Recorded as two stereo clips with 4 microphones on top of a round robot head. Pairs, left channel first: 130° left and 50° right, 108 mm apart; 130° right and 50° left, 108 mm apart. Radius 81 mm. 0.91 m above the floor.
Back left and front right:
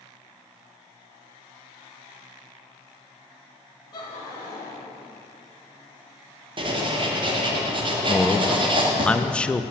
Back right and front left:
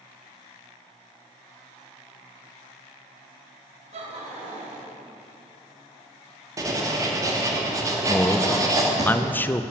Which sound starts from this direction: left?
Laughter, at 3.9 s.